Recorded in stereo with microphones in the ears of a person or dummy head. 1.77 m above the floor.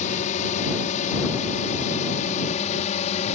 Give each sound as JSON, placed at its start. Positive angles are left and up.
{"t": 0.0, "sound": "a drone", "side_deg": 40}